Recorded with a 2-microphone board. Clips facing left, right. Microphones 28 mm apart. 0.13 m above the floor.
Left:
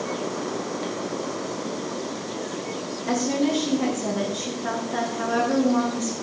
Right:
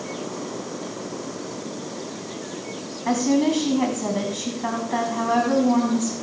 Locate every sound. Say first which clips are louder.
3.0 s a woman speaking: right 3 dB; 80° right, 6.5 m